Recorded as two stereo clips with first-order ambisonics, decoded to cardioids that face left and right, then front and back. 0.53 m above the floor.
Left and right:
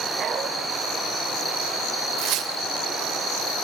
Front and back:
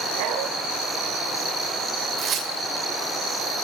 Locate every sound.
0.2 s a dog barking: 165° right, 3 m
2.2 s tearing paper: 125° right, 2.5 m